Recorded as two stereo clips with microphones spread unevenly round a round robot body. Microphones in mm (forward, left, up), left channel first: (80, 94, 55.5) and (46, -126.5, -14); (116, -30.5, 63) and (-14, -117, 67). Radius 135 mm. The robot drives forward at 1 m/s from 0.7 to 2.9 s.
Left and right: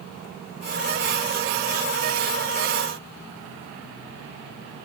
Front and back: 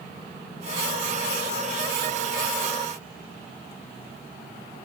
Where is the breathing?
I don't hear breathing.